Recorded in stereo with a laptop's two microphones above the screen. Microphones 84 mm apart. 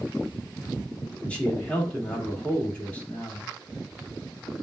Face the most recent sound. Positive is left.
turn(degrees=15)  # may be behind; listen again after turning